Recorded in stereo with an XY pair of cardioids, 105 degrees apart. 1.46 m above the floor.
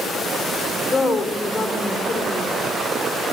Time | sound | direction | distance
0.9 | a woman speaking | 30° left | 4.5 m